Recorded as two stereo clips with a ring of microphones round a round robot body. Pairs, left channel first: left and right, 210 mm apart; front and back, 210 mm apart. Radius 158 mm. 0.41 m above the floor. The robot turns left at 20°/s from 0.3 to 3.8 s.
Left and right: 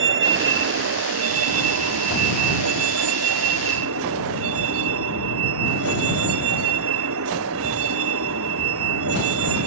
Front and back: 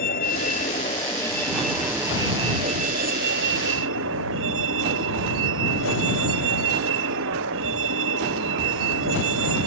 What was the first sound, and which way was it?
A vehicle, 65° right.